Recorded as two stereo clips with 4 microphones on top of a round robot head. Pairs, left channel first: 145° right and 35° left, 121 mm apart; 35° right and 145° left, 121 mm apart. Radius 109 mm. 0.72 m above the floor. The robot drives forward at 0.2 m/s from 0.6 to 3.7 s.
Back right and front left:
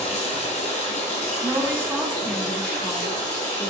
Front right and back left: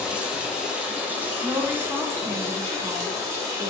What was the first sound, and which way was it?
Running water, 135° right.